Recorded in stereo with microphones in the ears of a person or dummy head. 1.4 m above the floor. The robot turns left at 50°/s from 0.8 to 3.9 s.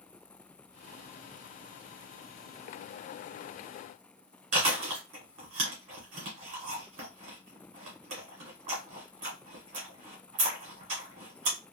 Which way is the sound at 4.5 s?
40° right (ahead or behind).